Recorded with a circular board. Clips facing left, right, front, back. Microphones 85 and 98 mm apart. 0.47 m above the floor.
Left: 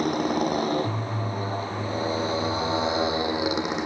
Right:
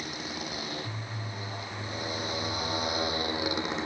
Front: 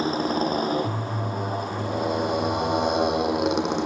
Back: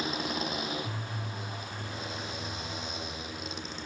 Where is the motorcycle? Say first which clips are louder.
Left 14 dB, front 10 dB; 55° left; by 3.9 s 20° left.